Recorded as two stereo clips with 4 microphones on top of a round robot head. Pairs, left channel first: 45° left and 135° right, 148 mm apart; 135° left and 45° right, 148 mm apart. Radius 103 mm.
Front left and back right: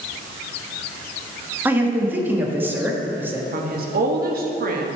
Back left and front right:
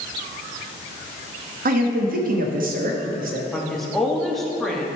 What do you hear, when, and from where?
1.6 s a man speaking: 60° right, 1.1 m
3.5 s a woman speaking: 135° right, 1.1 m